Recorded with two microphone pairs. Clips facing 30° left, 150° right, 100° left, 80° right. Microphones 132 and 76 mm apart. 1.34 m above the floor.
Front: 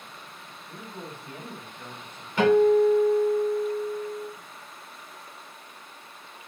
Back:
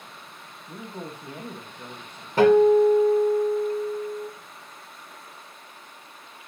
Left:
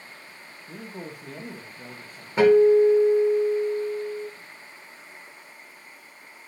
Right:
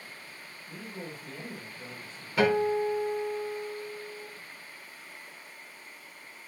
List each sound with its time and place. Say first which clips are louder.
0.7 s a man speaking: back 4 dB, left 3 dB; 150° left, 1.2 m
2.4 s a guitar: back 3 dB, left 10 dB; 165° left, 2.5 m